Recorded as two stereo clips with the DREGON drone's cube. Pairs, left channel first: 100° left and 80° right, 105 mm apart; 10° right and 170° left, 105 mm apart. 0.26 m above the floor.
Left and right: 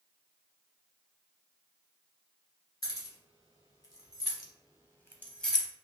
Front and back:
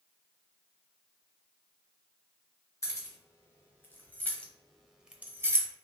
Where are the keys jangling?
50° left, 1.5 m; by 5.7 s 170° right, 0.6 m.